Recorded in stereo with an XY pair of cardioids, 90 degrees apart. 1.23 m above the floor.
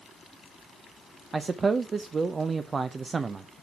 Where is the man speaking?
40° right, 0.5 m.